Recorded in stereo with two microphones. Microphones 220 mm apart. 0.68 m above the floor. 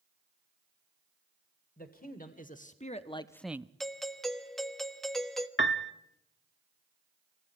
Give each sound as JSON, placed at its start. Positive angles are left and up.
{"t": 1.8, "sound": "a man speaking", "side_deg": 40, "distance_m": 2.5}
{"t": 3.8, "sound": "a doorbell", "side_deg": 0, "distance_m": 1.3}
{"t": 5.6, "sound": "a piano", "side_deg": 60, "distance_m": 1.0}